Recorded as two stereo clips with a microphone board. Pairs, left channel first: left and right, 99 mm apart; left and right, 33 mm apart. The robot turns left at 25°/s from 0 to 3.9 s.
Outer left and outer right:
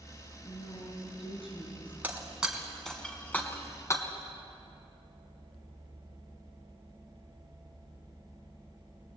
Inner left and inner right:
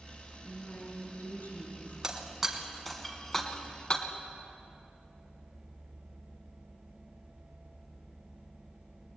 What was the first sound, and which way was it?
A woman speaking, 90° left.